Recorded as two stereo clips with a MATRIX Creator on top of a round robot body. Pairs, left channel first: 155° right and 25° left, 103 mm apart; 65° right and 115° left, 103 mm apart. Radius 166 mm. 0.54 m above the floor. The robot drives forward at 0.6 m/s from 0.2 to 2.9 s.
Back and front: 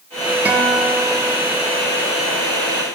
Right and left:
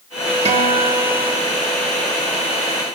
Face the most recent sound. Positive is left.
turn(degrees=145)